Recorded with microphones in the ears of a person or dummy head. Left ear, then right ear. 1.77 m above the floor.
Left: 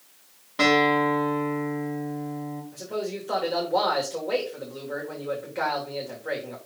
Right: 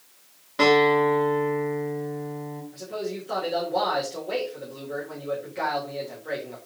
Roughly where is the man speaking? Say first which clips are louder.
Left 1 dB; left.